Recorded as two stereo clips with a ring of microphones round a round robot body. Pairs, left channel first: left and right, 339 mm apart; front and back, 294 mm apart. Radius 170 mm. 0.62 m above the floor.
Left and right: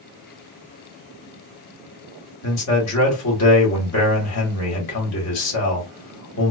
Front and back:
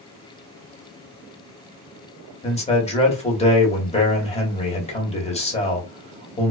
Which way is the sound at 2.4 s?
65° left.